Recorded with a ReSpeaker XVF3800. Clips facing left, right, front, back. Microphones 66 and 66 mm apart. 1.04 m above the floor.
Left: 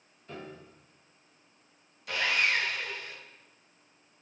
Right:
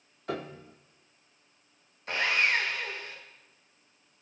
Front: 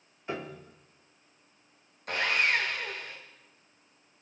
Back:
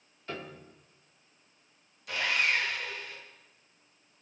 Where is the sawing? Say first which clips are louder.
Right 1 dB, front 2 dB; 35° right, 1.4 m.